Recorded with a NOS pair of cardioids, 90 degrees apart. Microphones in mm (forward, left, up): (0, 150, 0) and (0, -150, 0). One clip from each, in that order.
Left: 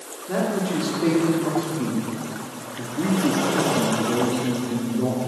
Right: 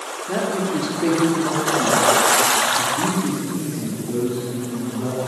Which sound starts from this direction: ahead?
A man speaking, at 0.3 s.